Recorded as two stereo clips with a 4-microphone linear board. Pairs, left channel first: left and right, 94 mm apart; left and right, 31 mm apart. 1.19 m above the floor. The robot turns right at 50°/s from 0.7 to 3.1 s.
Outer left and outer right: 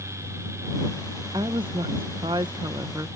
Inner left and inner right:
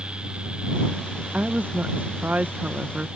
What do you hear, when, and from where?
1.3 s a woman speaking: 125° right; by 3.1 s 40° right